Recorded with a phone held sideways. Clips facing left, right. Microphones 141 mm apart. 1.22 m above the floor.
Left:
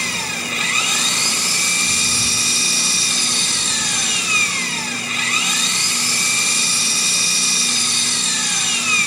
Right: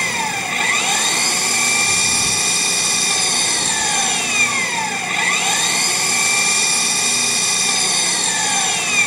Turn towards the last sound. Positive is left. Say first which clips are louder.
# right 5 dB
turn(degrees=-55)  # may be behind; listen again after turning